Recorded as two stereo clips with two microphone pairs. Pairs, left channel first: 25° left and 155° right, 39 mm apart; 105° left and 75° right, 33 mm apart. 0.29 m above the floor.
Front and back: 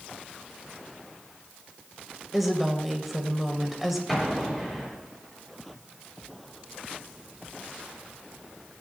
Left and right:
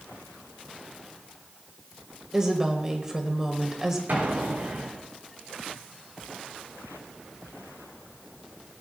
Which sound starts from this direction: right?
A woman speaking, at 2.3 s.